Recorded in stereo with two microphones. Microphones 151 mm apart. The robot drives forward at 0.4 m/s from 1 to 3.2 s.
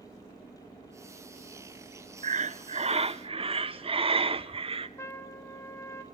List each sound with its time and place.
2.2 s breathing: 55° right (ahead or behind), 0.7 m; by 4.9 s 40° right (ahead or behind), 0.9 m
5.0 s a trumpet: 20° left (ahead or behind), 1.5 m